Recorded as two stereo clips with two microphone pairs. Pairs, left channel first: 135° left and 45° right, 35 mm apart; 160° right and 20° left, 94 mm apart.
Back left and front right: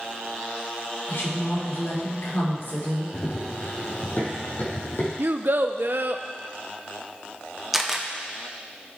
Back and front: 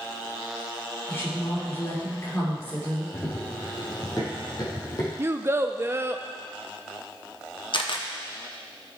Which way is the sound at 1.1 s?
140° left.